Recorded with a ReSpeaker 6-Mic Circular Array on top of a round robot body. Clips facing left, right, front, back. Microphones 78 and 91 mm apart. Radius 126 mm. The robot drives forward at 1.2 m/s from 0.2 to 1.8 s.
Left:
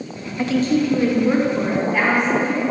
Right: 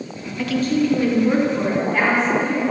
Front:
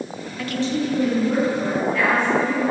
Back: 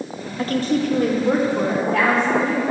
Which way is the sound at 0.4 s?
135° left.